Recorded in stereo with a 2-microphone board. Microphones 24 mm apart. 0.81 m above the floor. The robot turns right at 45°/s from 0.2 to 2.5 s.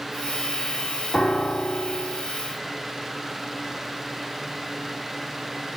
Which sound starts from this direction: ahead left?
A piano, at 1.1 s.